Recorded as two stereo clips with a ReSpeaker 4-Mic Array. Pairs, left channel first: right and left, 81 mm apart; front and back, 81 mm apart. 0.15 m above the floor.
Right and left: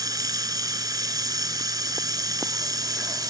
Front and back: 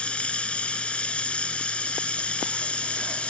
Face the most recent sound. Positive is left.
turn(degrees=75)